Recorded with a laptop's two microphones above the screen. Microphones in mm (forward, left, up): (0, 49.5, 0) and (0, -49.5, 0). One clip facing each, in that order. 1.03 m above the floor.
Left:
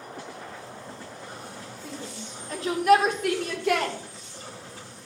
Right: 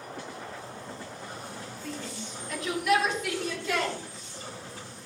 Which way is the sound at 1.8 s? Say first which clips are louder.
Even; 20° left (ahead or behind).